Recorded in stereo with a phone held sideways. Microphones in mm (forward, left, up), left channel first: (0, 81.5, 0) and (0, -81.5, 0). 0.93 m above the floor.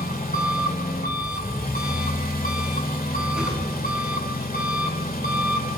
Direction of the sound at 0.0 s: 65° left (ahead or behind).